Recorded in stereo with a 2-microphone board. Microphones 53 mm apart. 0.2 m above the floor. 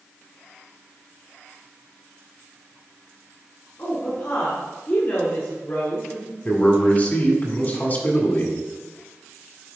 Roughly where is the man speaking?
Left.